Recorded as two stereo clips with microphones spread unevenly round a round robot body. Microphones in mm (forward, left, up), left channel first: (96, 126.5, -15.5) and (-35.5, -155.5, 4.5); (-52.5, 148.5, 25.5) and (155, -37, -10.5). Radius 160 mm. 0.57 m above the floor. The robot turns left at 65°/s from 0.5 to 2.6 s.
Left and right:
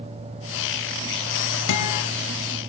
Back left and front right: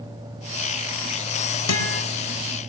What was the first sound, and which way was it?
A guitar, 105° left.